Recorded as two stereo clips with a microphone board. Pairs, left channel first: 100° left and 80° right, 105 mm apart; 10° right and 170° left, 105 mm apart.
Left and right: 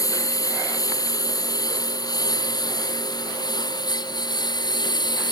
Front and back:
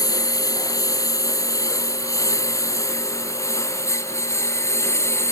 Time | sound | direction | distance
0.0 | a lawn mower | 45° left | ?